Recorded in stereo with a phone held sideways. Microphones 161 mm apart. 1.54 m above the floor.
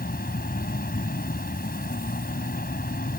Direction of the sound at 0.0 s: 70° left (ahead or behind).